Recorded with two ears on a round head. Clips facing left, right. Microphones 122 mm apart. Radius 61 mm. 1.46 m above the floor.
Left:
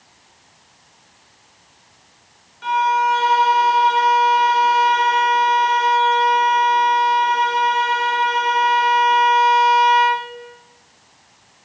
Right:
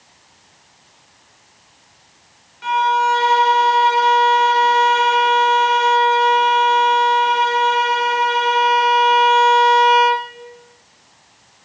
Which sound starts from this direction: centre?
A violin, at 2.6 s.